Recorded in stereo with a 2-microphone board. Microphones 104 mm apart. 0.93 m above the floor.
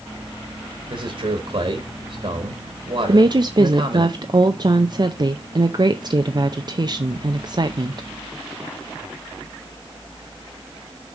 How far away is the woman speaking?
About 0.5 m.